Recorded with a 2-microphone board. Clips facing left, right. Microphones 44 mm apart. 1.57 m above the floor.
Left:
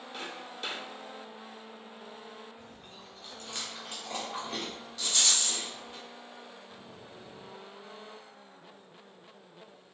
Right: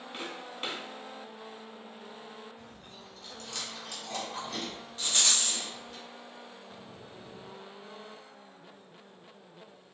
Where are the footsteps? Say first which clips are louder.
Right 1 dB; 30° right (ahead or behind), 1.8 m.